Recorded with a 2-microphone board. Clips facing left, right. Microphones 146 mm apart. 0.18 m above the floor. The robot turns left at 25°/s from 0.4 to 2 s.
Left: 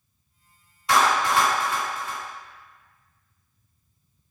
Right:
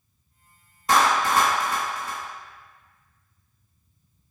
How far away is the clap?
About 1.9 m.